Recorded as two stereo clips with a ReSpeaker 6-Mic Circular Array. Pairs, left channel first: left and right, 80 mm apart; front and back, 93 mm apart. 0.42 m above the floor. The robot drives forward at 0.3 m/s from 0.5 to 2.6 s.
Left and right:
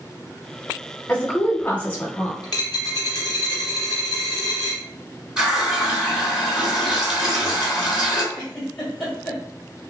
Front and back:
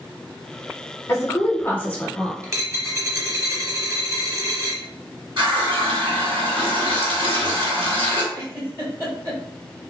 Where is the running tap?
170° right, 1.8 m.